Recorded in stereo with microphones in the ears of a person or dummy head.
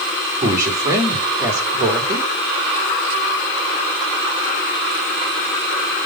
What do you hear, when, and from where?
0.4 s a man speaking: 15° right (ahead or behind), 2.5 m